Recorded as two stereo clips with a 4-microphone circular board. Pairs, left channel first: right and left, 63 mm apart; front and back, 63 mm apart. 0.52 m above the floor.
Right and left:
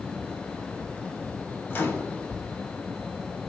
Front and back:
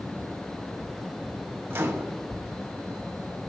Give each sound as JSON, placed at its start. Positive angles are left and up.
{"t": 1.7, "sound": "a microwave", "azimuth_deg": -140, "distance_m": 0.9}